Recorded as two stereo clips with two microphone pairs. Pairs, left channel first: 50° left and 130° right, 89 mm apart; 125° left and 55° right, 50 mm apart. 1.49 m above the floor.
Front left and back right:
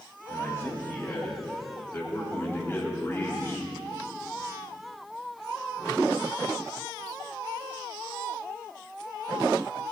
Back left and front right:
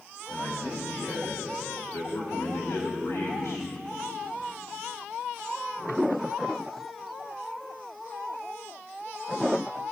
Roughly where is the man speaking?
Left.